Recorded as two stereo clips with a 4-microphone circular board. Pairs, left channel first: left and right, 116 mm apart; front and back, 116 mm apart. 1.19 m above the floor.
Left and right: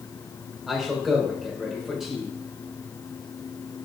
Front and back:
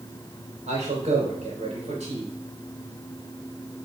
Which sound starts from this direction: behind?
A man speaking, at 0.7 s.